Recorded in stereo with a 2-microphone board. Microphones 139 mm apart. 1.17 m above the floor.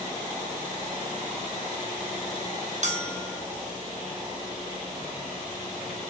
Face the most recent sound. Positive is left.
turn(degrees=-55)  # may be behind; listen again after turning